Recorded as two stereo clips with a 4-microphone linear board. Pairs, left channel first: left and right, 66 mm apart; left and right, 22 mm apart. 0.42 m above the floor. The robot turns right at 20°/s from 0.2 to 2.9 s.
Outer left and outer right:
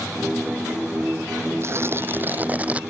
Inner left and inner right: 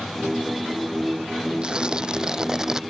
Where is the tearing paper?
45° right (ahead or behind); by 2.8 s 20° right (ahead or behind).